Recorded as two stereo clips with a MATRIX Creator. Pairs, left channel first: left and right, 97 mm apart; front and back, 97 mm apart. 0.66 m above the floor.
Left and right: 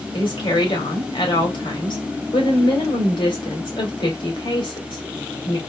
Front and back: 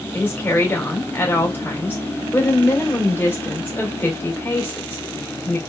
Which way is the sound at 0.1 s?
65° left.